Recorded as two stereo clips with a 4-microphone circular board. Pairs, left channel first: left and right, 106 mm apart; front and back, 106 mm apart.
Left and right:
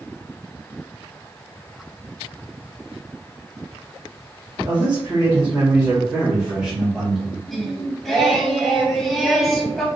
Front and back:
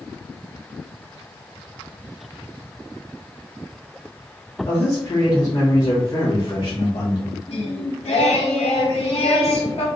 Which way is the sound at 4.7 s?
60° right.